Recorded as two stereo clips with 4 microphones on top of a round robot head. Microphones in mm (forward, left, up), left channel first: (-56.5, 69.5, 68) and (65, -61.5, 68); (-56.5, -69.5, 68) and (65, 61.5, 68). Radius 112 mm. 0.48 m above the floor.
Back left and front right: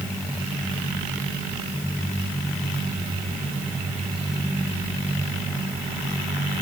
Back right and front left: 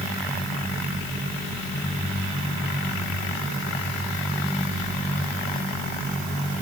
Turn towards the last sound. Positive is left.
No sound to turn to.